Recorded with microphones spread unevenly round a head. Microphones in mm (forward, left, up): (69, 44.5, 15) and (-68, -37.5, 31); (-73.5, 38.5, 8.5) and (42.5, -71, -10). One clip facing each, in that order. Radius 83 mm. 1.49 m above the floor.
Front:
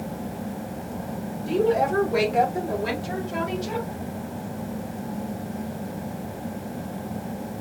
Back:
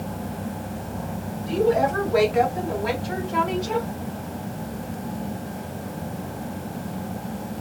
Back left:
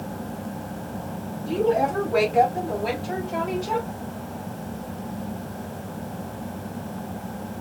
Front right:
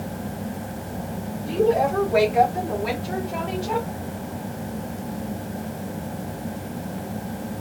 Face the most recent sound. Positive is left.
turn(degrees=50)